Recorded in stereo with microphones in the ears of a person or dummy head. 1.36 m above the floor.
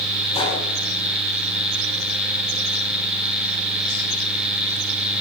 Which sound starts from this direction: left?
A gunshot, at 0.3 s.